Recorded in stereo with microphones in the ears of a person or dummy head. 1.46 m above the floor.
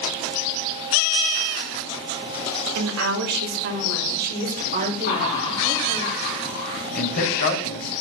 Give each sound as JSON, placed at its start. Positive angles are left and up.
{"t": 2.8, "sound": "a woman speaking", "side_deg": -80, "distance_m": 2.5}
{"t": 5.0, "sound": "laughter", "side_deg": 45, "distance_m": 6.0}
{"t": 7.0, "sound": "a man speaking", "side_deg": 50, "distance_m": 3.5}